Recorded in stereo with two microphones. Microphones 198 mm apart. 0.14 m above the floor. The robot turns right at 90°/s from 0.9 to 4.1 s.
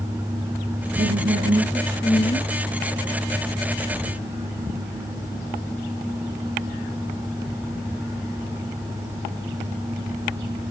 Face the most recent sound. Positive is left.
turn(degrees=-155)